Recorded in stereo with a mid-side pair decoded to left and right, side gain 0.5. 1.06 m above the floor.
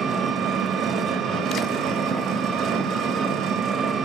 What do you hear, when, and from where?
0.0 s an engine running: 50° right, 1.5 m